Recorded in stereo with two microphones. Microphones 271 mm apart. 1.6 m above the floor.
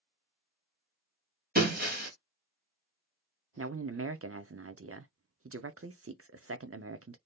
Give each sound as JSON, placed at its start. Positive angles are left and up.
{"t": 1.6, "sound": "breaking glass", "side_deg": -35, "distance_m": 1.9}
{"t": 3.6, "sound": "a man speaking", "side_deg": -55, "distance_m": 0.6}